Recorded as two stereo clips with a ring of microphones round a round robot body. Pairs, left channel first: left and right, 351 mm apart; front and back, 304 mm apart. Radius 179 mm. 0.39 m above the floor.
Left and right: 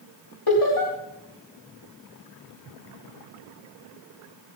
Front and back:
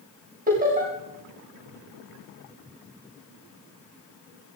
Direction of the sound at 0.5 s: 120° left.